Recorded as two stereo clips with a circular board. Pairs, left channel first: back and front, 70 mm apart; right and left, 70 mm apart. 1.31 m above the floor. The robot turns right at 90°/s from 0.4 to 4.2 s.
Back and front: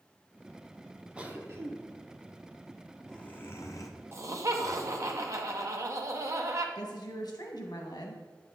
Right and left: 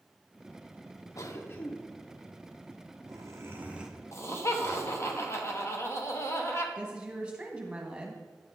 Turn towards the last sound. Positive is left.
turn(degrees=165)